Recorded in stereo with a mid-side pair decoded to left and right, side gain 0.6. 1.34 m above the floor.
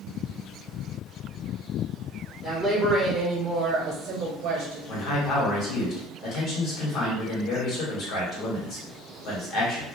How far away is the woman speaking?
About 1.3 m.